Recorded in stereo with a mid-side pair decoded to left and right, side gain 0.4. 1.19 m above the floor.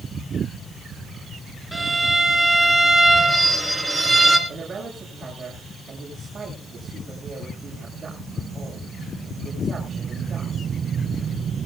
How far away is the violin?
About 3 m.